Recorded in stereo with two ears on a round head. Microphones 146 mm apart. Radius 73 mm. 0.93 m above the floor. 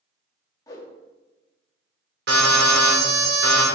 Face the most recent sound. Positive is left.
turn(degrees=-65)  # may be behind; listen again after turning